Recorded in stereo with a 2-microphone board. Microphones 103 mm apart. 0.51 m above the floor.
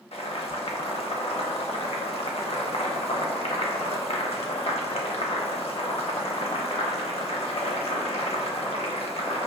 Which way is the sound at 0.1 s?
75° left (ahead or behind).